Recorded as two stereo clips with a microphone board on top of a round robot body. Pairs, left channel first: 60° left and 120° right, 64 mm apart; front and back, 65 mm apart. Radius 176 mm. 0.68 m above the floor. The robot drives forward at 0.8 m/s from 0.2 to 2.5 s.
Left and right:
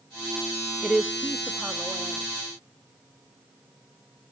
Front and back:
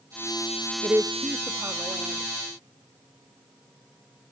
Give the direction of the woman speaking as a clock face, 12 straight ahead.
7 o'clock.